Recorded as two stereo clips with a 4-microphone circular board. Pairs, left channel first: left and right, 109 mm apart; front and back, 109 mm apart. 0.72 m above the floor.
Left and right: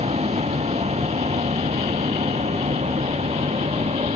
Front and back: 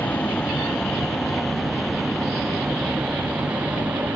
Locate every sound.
0.0 s a vehicle: 80° right; by 4.2 s 105° right